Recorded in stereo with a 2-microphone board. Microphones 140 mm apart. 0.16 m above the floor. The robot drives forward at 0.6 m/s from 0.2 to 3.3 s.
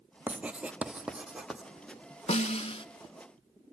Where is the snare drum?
50° left (ahead or behind), 0.5 m; by 2.9 s 40° left (ahead or behind), 0.6 m.